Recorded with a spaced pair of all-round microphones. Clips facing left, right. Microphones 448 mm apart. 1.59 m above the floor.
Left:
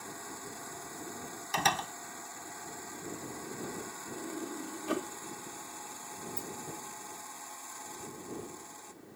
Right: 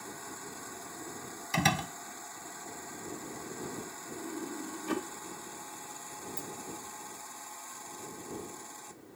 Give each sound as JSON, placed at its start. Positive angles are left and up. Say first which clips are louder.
{"t": 1.5, "sound": "a door slam", "louder": "right 4 dB", "side_deg": -45}
{"t": 4.2, "sound": "a sliding door", "louder": "right 1 dB", "side_deg": -10}
{"t": 6.4, "sound": "a dropped coin", "louder": "left 1 dB", "side_deg": 65}